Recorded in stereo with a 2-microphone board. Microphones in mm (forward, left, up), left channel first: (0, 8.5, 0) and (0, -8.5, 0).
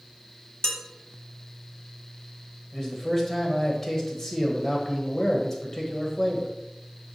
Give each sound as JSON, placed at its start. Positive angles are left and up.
{"t": 0.6, "sound": "dishes clattering", "side_deg": 55, "distance_m": 1.4}
{"t": 2.7, "sound": "a man speaking", "side_deg": 25, "distance_m": 1.5}